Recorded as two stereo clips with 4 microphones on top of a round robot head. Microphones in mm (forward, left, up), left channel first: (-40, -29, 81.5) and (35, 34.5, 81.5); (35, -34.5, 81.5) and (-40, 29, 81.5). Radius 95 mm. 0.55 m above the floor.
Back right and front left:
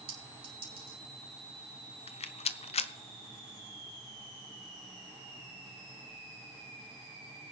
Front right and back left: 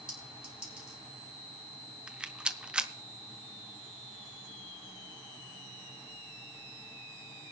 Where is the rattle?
140° right, 0.6 m.